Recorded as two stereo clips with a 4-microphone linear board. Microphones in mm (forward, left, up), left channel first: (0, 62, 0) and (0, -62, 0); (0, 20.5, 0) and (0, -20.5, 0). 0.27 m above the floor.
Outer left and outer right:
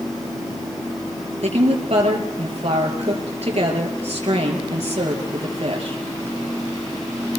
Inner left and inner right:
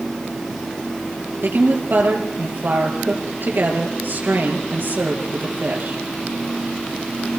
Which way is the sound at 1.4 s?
55° right (ahead or behind).